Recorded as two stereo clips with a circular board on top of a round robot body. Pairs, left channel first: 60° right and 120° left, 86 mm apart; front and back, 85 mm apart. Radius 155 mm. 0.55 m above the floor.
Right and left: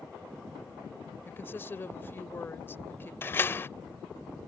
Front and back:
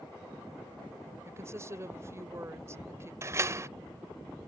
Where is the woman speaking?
125° right.